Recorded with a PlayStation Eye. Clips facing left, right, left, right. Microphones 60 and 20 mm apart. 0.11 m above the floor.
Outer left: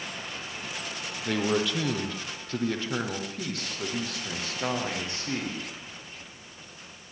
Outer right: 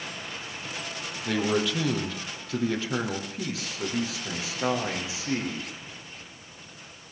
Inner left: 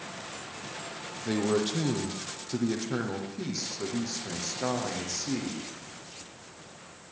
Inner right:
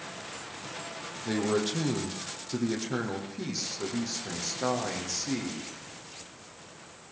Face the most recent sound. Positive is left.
turn(degrees=-5)  # may be behind; listen again after turning